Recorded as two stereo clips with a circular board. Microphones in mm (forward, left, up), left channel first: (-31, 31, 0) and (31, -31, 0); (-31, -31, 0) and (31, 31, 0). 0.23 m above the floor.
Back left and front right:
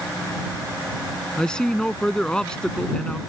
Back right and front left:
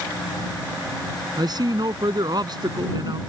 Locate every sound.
1.4 s a man speaking: 55° left